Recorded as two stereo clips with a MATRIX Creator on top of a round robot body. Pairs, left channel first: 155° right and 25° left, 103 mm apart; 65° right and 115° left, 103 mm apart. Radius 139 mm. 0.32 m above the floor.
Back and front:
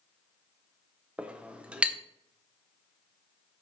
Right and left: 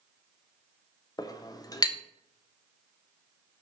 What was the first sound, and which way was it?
A clink, 50° right.